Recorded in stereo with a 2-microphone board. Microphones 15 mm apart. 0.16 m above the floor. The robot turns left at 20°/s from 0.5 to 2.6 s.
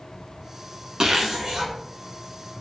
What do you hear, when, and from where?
1.0 s a zipper: 55° right (ahead or behind), 0.7 m